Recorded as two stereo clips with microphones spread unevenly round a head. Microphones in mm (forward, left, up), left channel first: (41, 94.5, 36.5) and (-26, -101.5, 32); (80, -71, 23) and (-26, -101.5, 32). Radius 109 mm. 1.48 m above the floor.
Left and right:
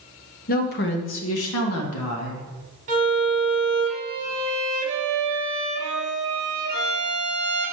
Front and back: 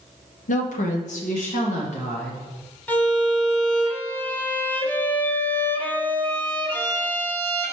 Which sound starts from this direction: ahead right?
A violin, at 2.9 s.